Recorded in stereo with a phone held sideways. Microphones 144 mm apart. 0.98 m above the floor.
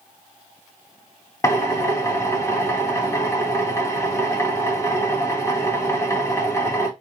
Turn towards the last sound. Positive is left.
turn(degrees=20)  # may be behind; listen again after turning